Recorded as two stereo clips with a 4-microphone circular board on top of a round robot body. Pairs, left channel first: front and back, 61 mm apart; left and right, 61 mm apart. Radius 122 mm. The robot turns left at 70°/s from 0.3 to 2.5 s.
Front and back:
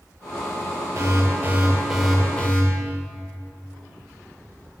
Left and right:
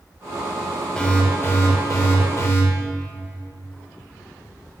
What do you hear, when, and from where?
0.9 s an alarm: 165° left, 3 m; by 2.6 s 55° left, 3 m